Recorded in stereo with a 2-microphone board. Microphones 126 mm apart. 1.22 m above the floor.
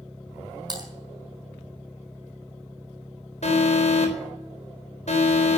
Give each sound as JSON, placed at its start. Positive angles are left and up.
{"t": 0.7, "sound": "typing on a keyboard", "side_deg": -35, "distance_m": 4.5}
{"t": 3.4, "sound": "an alarm", "side_deg": 60, "distance_m": 3.5}